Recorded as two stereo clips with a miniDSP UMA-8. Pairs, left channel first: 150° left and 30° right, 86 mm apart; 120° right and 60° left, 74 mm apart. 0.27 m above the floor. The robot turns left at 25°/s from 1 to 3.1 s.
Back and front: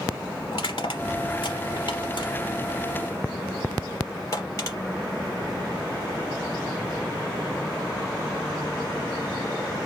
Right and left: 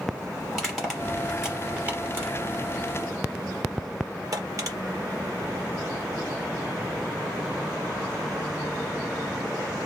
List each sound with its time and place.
0.5 s crushing: 150° left, 4.5 m; by 4.8 s 100° left, 4.5 m